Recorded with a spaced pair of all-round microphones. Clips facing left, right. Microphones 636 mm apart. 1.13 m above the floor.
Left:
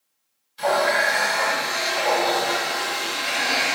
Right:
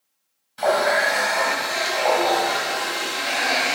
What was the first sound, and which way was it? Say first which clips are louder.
A running tap: right 2 dB; 70° right (ahead or behind).